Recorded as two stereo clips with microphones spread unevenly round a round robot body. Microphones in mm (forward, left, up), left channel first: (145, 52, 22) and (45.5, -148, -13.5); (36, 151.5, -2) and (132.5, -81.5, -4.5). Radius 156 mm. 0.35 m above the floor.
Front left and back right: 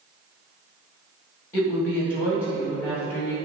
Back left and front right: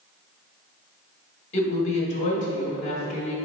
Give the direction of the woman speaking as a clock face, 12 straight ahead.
7 o'clock.